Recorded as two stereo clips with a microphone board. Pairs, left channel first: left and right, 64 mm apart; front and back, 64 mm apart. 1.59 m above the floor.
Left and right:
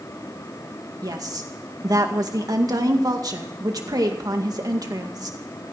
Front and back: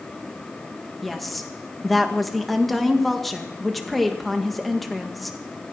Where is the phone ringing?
No phone ringing in this recording.